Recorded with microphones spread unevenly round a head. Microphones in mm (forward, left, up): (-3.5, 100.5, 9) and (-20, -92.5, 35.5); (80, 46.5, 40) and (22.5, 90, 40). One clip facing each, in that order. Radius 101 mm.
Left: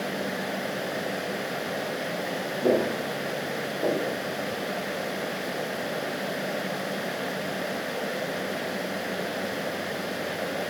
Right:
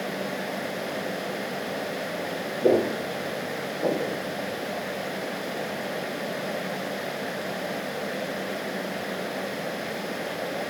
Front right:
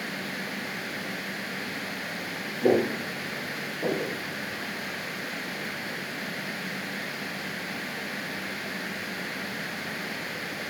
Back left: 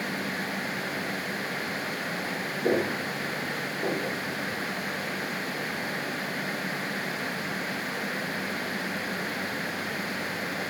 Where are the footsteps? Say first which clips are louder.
Right 2 dB, front right 4 dB; 55° right, 2.5 m; by 4.2 s 30° right, 2.5 m.